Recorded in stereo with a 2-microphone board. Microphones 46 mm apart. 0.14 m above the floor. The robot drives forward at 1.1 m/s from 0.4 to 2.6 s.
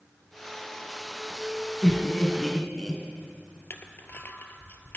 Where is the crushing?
50° left (ahead or behind), 0.6 m.